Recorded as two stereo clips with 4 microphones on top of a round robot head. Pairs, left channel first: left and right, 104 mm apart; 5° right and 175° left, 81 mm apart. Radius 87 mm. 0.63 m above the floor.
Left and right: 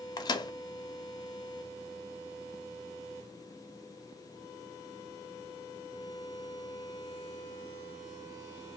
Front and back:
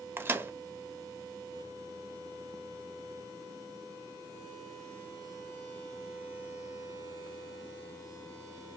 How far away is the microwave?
About 0.5 m.